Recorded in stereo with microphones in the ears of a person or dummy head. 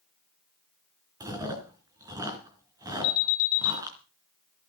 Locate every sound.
1.2 s chewing: 20° right (ahead or behind), 4 m
3.0 s an alarm: 70° left (ahead or behind), 3 m